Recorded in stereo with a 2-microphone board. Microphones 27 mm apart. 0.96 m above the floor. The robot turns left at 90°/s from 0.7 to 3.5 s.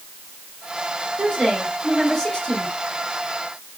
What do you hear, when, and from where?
1.2 s a woman speaking: 115° right, 3 m; by 2.7 s 105° left, 3 m